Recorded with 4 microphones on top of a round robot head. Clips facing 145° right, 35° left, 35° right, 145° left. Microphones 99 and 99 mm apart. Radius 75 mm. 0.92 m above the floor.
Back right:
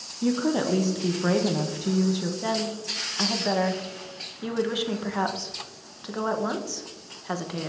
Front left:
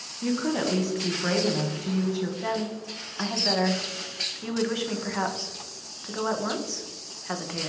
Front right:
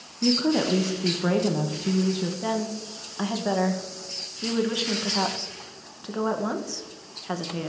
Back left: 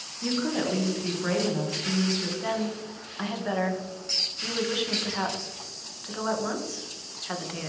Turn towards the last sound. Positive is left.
turn(degrees=-80)